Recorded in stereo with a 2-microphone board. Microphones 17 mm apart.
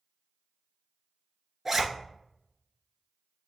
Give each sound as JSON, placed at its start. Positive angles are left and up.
{"t": 1.6, "sound": "a zipper", "side_deg": -15, "distance_m": 1.0}